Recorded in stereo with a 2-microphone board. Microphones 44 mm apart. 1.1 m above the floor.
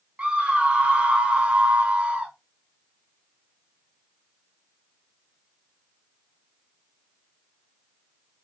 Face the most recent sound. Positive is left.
turn(degrees=-25)  # may be behind; listen again after turning